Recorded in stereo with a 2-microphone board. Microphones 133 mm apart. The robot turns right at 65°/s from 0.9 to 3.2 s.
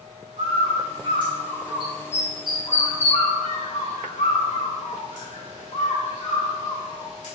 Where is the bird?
60° right (ahead or behind), 2.0 m; by 7.3 s 70° left (ahead or behind), 2.0 m.